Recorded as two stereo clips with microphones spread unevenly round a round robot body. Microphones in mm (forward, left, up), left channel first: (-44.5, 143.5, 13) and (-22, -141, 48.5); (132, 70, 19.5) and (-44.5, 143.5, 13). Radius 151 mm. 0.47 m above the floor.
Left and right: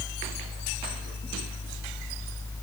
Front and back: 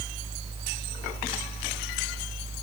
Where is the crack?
No crack in this recording.